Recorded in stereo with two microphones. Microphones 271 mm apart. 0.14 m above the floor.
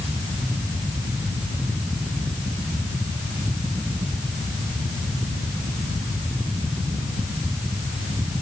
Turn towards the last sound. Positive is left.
No sound to turn to.